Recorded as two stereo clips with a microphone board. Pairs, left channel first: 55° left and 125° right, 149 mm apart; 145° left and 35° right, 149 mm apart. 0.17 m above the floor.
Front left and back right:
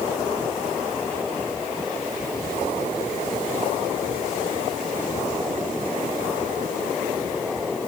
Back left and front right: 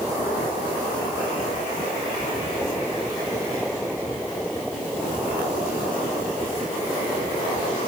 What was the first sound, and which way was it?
Only background noise.